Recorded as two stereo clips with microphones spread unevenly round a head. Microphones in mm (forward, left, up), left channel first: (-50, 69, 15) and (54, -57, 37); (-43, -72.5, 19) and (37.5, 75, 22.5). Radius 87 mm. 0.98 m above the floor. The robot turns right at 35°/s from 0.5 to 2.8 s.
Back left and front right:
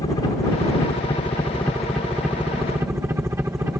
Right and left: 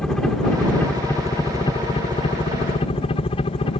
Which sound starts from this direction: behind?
A helicopter, at 0.0 s.